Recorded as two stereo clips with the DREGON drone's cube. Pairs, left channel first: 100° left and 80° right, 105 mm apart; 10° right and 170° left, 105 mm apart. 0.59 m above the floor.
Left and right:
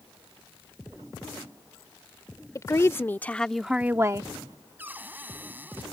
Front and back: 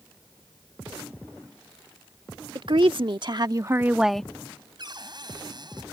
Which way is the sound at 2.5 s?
150° left.